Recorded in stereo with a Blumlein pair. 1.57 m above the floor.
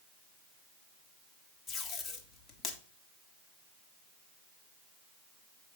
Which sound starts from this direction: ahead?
Tape being pulled, at 1.7 s.